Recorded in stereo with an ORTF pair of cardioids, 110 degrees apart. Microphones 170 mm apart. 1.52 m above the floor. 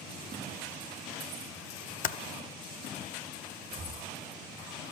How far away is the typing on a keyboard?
About 1.1 m.